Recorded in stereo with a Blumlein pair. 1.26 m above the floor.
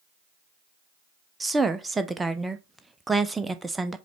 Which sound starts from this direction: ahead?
A woman speaking, at 1.4 s.